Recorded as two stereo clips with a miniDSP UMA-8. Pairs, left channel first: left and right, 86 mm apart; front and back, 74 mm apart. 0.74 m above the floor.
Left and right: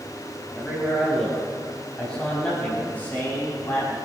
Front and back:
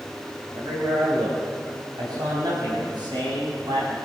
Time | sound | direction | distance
0.5 | a man speaking | straight behind | 5 m